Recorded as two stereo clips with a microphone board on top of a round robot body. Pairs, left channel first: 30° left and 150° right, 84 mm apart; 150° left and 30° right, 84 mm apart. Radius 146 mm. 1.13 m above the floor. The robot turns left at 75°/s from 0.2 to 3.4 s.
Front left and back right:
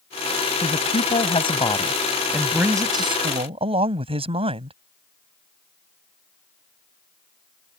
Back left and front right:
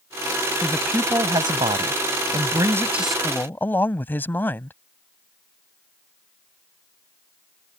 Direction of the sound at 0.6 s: 70° left.